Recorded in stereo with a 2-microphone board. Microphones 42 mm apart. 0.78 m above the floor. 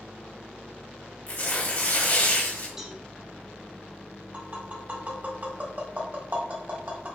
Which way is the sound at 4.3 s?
45° right (ahead or behind).